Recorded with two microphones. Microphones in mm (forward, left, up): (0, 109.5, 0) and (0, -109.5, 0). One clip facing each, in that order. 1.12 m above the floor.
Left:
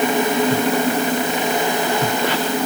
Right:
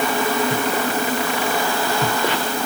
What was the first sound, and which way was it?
Only background noise.